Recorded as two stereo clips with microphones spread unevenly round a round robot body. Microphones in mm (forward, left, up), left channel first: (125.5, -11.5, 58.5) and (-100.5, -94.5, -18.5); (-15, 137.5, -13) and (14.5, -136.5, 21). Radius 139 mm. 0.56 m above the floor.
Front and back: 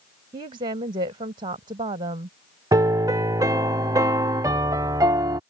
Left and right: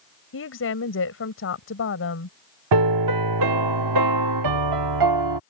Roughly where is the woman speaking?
Behind left.